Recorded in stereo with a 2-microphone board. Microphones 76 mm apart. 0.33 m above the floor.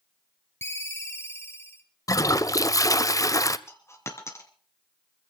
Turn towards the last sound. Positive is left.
turn(degrees=35)  # may be behind; listen again after turning